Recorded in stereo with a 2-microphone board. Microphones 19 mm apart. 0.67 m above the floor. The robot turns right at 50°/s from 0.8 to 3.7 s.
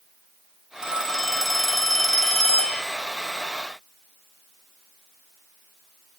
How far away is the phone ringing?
About 1.3 m.